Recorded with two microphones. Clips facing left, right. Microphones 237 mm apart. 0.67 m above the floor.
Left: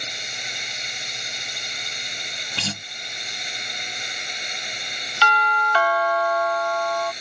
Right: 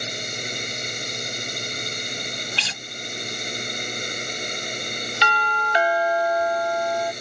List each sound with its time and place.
0.0 s a drone: 50° right (ahead or behind)
2.6 s a guitar: 50° left (ahead or behind)
5.2 s a doorbell: 20° right (ahead or behind)